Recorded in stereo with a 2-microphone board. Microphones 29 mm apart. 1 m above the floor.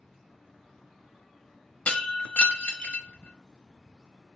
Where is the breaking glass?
50° left (ahead or behind), 1.0 m.